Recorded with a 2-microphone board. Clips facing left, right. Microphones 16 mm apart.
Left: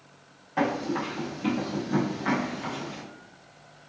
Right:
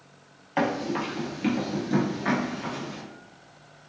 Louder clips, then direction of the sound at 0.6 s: Right 1 dB; 50° right (ahead or behind).